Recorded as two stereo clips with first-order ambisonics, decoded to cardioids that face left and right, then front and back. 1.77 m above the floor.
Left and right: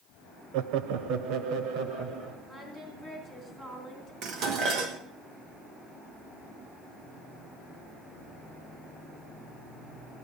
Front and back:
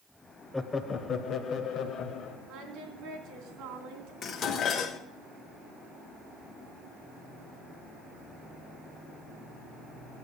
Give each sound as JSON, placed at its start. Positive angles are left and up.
{"t": 0.5, "sound": "laughter", "azimuth_deg": -85, "distance_m": 0.7}
{"t": 2.5, "sound": "singing", "azimuth_deg": -155, "distance_m": 3.0}
{"t": 4.2, "sound": "dishes clattering", "azimuth_deg": -55, "distance_m": 1.4}